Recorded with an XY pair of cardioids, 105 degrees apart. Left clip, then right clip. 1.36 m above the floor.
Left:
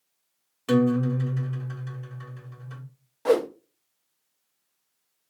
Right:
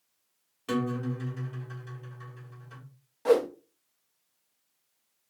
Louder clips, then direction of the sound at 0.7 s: Left 8 dB; 40° left.